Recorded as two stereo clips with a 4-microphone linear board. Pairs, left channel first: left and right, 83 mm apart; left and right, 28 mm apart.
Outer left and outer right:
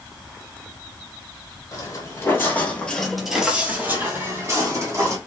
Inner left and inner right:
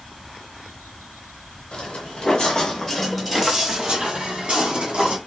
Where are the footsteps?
35° left (ahead or behind), 1.6 m; by 5.2 s 35° right (ahead or behind), 2 m.